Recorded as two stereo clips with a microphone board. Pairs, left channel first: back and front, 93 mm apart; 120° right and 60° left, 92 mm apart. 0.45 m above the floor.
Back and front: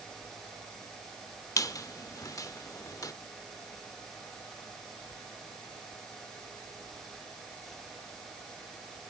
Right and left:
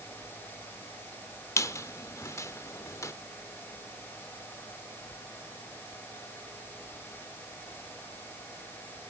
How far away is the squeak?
About 0.7 m.